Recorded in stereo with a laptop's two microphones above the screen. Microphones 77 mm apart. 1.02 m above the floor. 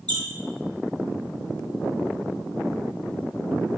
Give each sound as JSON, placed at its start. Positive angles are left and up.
{"t": 0.1, "sound": "a squeak", "side_deg": -70, "distance_m": 0.6}